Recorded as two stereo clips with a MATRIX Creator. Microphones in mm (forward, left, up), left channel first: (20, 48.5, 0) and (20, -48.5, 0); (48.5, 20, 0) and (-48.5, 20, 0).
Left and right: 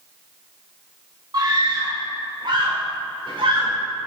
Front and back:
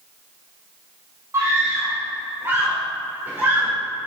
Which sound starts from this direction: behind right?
A scream, at 1.3 s.